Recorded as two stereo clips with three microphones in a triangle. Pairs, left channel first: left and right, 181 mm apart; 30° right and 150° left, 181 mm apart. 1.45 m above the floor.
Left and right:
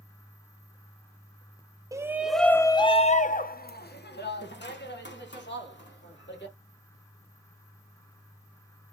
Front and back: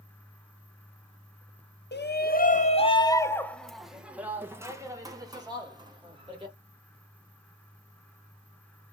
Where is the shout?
15° right, 0.7 m; by 6.5 s 90° left, 2 m.